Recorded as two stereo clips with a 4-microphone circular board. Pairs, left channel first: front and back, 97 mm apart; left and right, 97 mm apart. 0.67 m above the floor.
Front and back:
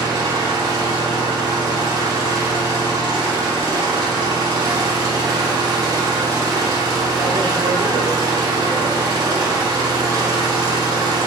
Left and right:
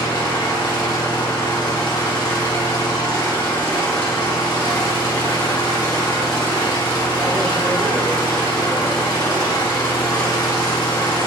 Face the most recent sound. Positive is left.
turn(degrees=130)